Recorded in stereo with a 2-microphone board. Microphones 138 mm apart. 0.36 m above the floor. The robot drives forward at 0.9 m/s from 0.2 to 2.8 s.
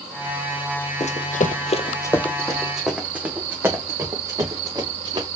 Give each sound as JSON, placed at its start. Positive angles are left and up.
{"t": 1.0, "sound": "running footsteps", "side_deg": 55, "distance_m": 1.0}